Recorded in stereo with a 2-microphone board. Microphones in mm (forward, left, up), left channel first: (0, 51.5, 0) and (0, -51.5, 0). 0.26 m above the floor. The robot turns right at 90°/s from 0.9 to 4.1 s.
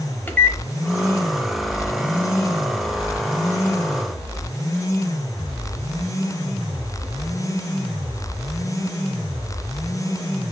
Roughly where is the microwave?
Centre.